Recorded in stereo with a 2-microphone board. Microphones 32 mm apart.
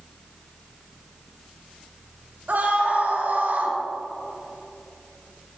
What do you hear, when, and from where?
2.5 s a scream: 65° right (ahead or behind), 4 m